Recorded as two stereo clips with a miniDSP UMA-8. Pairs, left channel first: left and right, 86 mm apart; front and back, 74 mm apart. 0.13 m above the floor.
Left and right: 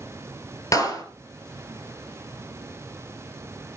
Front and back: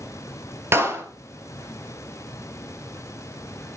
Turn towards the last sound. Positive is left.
turn(degrees=130)